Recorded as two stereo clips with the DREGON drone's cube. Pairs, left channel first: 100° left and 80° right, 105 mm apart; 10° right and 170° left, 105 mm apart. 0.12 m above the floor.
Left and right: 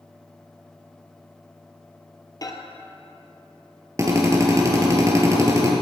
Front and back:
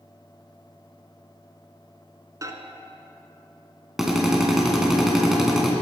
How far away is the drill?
About 2.0 m.